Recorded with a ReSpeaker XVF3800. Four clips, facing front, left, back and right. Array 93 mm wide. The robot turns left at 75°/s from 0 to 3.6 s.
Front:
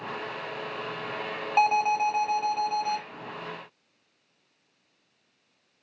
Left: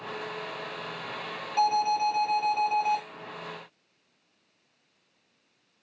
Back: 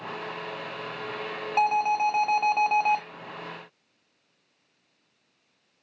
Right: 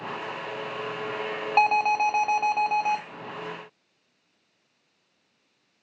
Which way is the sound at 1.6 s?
70° right.